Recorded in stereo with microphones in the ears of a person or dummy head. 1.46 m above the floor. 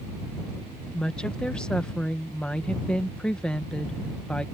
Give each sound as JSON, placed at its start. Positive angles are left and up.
{"t": 0.9, "sound": "a woman speaking", "side_deg": 5}